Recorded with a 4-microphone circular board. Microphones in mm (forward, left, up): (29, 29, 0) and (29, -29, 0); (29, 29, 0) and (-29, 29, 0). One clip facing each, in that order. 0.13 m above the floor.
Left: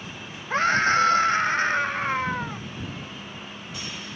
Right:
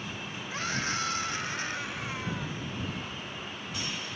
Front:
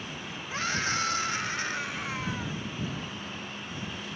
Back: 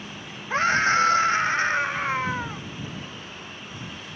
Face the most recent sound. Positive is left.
turn(degrees=130)